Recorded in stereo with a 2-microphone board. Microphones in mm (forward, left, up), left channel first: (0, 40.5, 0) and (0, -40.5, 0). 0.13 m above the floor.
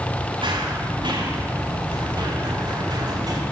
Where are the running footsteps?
75° right (ahead or behind), 9.5 m; by 3.4 s 55° right (ahead or behind), 10 m.